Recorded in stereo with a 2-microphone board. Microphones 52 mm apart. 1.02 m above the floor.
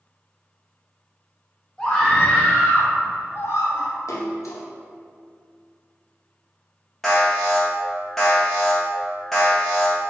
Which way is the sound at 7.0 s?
5° left (ahead or behind).